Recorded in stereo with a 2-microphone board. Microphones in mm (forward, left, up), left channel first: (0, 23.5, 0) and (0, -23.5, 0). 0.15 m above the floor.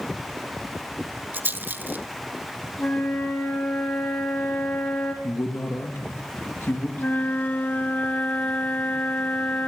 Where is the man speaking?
60° left (ahead or behind), 2 m.